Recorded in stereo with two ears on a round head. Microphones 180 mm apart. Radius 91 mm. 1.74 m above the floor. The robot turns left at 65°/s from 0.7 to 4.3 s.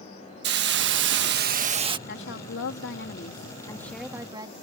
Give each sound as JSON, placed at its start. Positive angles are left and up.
{"t": 0.4, "sound": "a hiss", "azimuth_deg": -70}
{"t": 2.1, "sound": "a woman speaking", "azimuth_deg": 125}